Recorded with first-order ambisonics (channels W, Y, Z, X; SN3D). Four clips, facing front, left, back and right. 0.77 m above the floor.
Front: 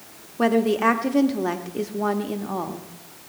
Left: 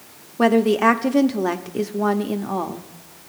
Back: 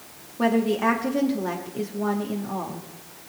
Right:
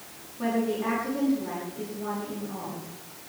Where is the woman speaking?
75° left, 1.1 m.